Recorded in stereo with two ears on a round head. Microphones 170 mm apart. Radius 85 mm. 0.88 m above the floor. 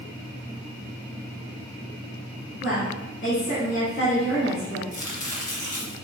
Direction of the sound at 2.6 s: 70° left (ahead or behind).